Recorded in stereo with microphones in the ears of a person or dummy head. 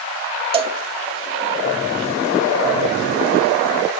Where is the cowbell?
25° right (ahead or behind), 0.6 m.